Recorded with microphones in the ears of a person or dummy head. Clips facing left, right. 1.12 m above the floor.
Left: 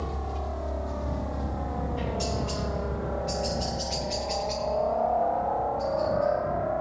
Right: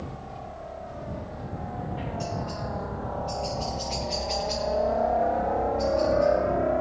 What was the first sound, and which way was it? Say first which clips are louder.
A helicopter: left 4 dB; 70° left (ahead or behind).